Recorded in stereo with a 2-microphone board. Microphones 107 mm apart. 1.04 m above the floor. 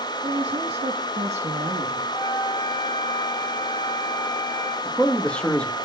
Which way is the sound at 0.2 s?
35° right (ahead or behind).